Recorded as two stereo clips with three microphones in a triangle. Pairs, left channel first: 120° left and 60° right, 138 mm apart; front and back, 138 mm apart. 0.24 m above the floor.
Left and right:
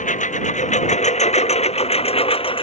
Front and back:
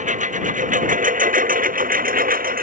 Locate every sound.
0.0 s a lawn mower: 150° left; by 2.6 s 170° left